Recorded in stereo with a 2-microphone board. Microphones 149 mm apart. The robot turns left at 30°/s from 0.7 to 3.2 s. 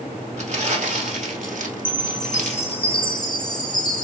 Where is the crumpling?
55° right (ahead or behind), 1.2 m; by 2.8 s 50° right (ahead or behind), 1.2 m.